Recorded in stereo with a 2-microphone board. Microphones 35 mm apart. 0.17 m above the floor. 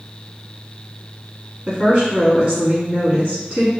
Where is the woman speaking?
35° right (ahead or behind), 1.4 m.